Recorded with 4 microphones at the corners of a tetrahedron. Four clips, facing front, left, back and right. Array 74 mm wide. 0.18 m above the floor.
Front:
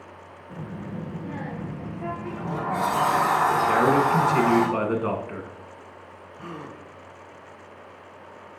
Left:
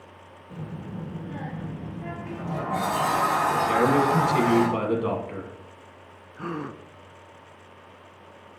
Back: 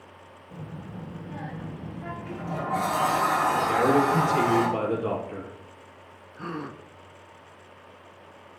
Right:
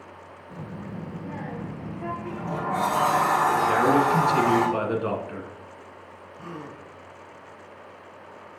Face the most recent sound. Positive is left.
turn(degrees=110)